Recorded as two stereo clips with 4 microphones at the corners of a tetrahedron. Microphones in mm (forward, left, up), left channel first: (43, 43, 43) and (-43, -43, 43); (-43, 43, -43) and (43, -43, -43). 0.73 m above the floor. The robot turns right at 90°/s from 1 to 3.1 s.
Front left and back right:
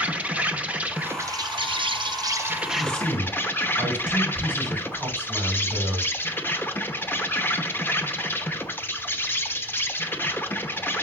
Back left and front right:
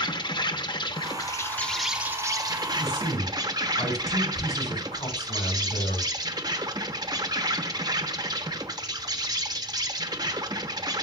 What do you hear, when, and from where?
0.0 s an insect: 155° left, 0.8 m; by 11.1 s 20° right, 0.8 m
2.8 s a man speaking: 115° left, 6.5 m; by 6.1 s 145° left, 6.5 m